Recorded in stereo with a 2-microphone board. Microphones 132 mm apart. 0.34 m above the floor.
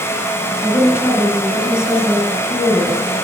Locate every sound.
0.6 s a woman speaking: 20° left (ahead or behind), 4 m